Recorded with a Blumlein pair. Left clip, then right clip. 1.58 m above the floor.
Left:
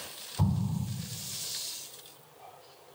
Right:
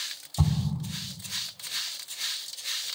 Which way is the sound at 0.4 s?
40° right.